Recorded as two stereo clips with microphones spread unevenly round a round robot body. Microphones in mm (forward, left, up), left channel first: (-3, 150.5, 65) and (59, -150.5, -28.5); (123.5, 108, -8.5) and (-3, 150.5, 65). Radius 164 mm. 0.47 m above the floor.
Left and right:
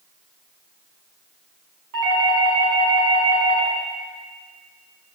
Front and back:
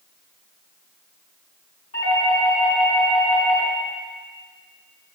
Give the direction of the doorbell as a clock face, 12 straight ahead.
2 o'clock.